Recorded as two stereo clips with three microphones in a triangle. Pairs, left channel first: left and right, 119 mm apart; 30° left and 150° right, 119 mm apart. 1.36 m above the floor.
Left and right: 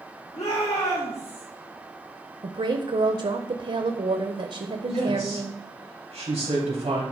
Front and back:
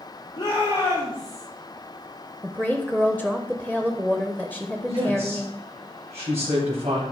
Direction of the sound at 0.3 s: 85° left.